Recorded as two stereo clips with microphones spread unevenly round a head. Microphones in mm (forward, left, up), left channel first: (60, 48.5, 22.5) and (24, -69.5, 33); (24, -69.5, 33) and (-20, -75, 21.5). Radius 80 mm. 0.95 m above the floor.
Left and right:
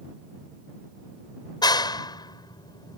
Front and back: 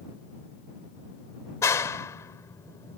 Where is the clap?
15° left.